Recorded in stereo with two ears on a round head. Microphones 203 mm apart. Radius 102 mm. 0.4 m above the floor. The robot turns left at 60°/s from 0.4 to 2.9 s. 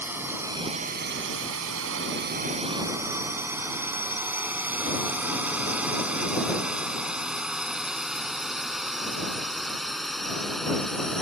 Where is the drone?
10° right (ahead or behind); by 11.2 s centre (ahead or behind).